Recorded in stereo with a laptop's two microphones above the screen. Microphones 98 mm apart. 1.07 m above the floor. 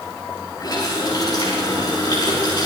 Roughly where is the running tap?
Left.